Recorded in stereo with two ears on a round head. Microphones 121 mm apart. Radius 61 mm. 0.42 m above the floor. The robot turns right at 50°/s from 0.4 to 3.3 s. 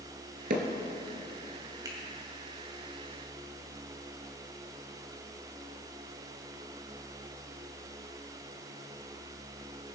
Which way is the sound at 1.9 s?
30° right (ahead or behind).